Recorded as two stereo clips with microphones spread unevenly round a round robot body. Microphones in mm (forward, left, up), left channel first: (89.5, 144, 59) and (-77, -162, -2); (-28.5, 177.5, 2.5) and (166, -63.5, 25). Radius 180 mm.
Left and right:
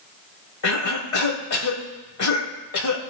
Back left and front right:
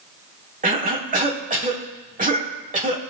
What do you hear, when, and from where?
0.6 s a cough: 15° left, 2.5 m